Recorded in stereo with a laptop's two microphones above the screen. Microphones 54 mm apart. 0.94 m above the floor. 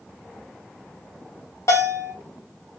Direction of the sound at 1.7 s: 60° left (ahead or behind).